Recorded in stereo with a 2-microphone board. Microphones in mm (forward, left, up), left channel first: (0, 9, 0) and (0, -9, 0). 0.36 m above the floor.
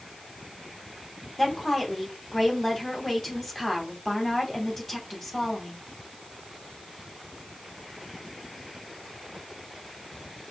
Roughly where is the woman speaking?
Centre.